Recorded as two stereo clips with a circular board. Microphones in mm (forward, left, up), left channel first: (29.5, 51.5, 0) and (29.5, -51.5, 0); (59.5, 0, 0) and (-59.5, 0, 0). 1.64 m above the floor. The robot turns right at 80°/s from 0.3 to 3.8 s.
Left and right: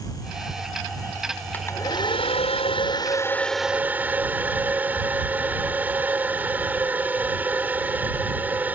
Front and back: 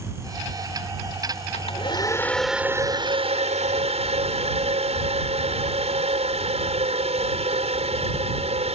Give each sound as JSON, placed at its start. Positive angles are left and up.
{"t": 1.5, "sound": "a hair dryer", "azimuth_deg": 15}